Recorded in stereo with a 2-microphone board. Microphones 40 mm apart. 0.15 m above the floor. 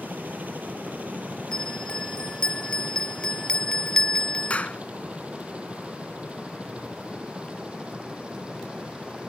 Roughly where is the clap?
Left.